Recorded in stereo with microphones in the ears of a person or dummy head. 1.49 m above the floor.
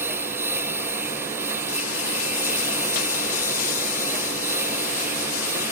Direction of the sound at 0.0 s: 10° right (ahead or behind).